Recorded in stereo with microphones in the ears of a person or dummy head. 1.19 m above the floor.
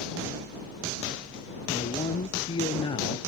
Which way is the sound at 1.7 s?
35° left (ahead or behind).